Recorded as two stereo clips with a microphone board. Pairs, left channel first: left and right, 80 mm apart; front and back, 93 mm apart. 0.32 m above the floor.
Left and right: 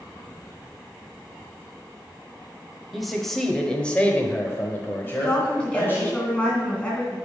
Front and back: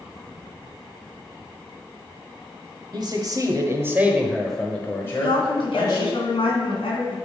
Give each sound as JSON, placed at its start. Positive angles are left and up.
{"t": 2.9, "sound": "a man speaking", "azimuth_deg": 180, "distance_m": 1.4}
{"t": 5.0, "sound": "a woman speaking", "azimuth_deg": 15, "distance_m": 2.5}